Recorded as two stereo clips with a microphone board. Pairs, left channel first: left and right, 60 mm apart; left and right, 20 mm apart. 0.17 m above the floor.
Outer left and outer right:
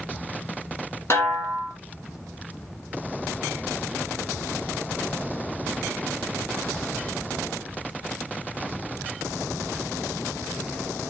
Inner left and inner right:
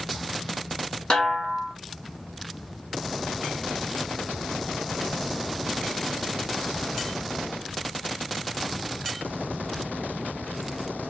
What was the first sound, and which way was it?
A snare drum, 45° left (ahead or behind).